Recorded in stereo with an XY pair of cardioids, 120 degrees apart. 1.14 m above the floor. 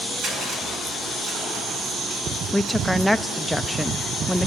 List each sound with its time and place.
0.2 s crushing: 65° right, 9.5 m
2.5 s a woman speaking: 5° left, 0.5 m